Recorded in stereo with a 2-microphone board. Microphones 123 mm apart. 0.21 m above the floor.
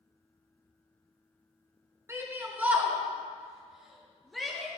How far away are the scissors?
I don't hear scissors.